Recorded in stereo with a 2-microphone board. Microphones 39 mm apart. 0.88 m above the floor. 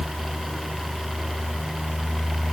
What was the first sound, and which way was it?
Only background noise.